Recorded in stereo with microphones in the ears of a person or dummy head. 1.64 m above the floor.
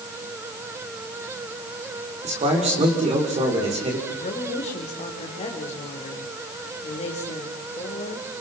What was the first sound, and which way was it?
A man speaking, 35° right (ahead or behind).